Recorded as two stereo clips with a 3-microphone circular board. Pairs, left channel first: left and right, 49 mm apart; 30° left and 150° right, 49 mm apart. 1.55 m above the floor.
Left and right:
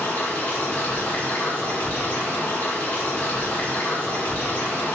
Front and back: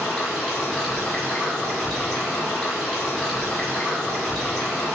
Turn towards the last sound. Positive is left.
turn(degrees=95)